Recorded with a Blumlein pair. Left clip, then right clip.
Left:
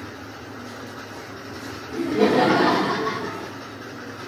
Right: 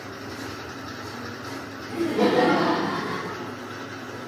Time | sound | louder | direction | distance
1.9 | laughter | left 2 dB | 15° right | 0.7 m